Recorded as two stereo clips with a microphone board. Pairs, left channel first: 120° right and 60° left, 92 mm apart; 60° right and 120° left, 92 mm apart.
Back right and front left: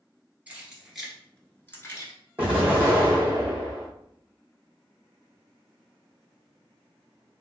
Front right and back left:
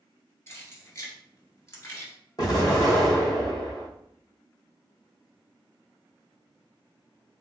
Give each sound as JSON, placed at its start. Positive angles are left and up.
{"t": 0.5, "sound": "keys jangling", "azimuth_deg": -10, "distance_m": 1.4}
{"t": 2.4, "sound": "an explosion", "azimuth_deg": -15, "distance_m": 1.9}